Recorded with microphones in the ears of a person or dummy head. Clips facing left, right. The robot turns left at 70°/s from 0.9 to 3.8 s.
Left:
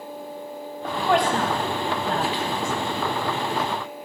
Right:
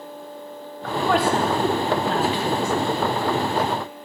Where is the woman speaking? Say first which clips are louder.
Right 1 dB; 20° left (ahead or behind), 1.4 m; by 2.7 s 70° right (ahead or behind), 1.4 m.